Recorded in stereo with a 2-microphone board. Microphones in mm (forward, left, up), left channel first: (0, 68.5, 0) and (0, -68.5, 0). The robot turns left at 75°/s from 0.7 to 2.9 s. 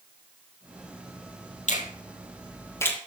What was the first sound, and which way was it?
A finger snap, 65° left (ahead or behind).